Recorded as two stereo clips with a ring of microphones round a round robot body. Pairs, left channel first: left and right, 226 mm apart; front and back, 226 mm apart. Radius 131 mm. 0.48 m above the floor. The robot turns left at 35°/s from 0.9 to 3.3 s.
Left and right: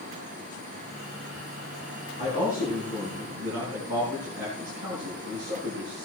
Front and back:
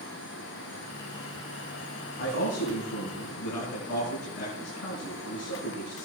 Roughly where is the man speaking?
Ahead left.